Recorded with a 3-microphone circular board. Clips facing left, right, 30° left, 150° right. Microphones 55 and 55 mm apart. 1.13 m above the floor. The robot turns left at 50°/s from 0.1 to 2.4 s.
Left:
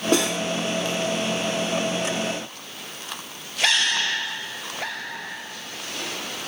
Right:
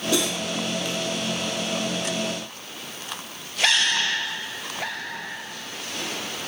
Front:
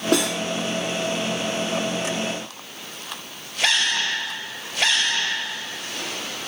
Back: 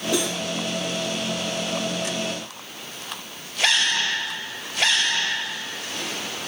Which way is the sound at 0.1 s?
50° left.